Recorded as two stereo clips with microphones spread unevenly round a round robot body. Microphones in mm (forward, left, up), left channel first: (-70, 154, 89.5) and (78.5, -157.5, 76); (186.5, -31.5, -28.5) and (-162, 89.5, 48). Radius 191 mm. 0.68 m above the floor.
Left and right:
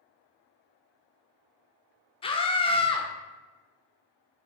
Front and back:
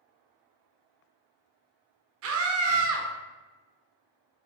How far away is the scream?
About 0.6 m.